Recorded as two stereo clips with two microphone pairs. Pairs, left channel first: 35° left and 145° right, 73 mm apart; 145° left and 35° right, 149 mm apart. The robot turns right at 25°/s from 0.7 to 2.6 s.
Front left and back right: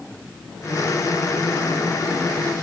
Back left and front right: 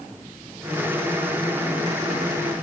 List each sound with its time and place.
Only background noise.